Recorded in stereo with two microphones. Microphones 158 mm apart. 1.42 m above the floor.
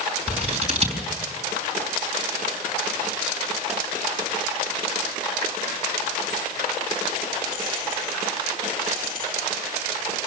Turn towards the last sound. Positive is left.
turn(degrees=-40)  # may be behind; listen again after turning